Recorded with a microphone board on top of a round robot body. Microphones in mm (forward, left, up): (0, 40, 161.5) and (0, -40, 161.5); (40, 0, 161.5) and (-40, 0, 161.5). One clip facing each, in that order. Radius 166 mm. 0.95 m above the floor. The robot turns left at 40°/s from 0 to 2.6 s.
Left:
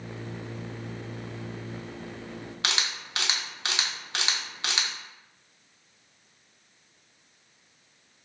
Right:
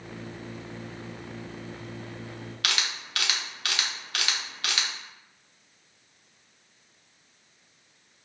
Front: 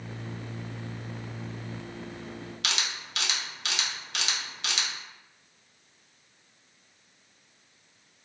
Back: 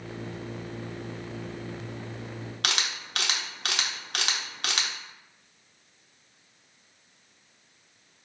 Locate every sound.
2.6 s a camera shutter: 155° left, 1.1 m